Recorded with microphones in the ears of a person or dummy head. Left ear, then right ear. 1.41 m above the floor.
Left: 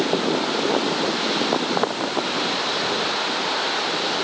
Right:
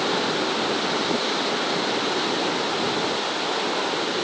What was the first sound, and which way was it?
Only background noise.